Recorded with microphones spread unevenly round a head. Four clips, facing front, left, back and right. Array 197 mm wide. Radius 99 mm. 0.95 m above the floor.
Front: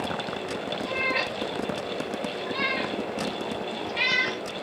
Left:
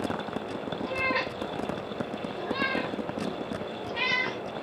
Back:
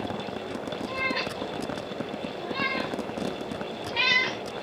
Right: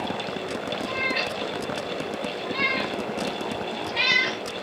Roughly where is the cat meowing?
Ahead left.